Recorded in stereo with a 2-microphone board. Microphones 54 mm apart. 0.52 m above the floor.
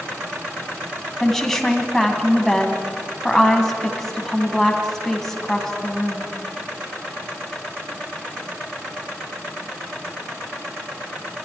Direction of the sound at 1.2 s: 10° left (ahead or behind).